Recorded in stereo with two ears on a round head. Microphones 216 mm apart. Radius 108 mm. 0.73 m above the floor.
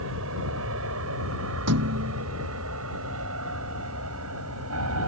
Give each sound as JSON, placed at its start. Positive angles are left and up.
{"t": 0.0, "sound": "an aircraft", "side_deg": -65}
{"t": 1.7, "sound": "a thud", "side_deg": -80}